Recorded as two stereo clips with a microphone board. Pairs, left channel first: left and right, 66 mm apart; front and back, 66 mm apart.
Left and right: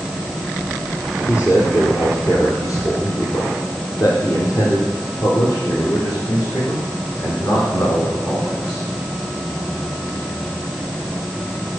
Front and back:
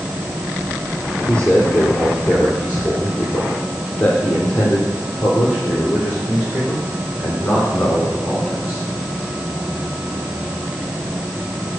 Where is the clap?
No clap in this recording.